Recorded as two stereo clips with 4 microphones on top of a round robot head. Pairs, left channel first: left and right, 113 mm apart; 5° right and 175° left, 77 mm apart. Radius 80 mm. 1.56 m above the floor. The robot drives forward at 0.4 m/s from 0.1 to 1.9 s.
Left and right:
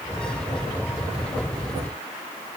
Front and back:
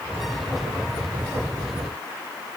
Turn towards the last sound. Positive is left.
No sound to turn to.